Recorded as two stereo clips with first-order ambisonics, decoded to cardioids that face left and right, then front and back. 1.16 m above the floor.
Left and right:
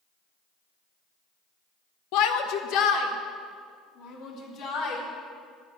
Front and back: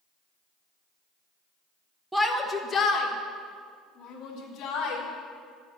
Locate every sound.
2.1 s a shout: 95° left, 1.2 m; by 5.0 s 50° left, 4 m